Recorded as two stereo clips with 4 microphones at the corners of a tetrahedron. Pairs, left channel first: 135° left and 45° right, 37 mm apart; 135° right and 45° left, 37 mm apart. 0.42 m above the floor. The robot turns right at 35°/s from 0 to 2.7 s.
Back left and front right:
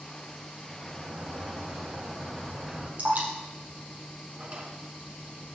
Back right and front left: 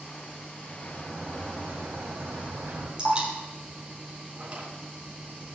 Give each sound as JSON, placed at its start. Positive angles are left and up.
{"t": 0.7, "sound": "a sliding door", "azimuth_deg": -30, "distance_m": 3.5}
{"t": 3.0, "sound": "dripping", "azimuth_deg": -20, "distance_m": 3.5}
{"t": 4.4, "sound": "a drawer", "azimuth_deg": -10, "distance_m": 3.0}